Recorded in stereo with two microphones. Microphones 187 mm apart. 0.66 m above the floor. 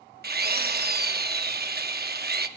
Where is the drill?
55° right (ahead or behind), 0.7 m.